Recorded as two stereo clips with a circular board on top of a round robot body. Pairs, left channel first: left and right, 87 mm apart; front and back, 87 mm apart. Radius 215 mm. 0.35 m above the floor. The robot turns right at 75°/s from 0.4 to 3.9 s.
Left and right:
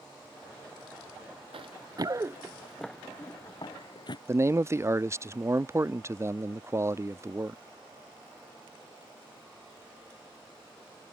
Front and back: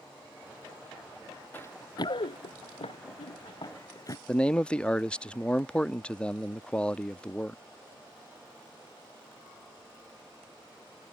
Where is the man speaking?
70° right.